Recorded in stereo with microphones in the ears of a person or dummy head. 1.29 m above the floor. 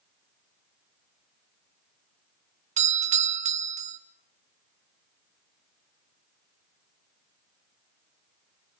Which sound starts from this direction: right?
A doorbell, at 2.8 s.